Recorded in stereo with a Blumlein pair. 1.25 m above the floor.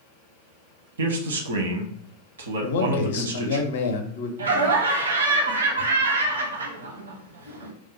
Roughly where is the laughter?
Ahead right.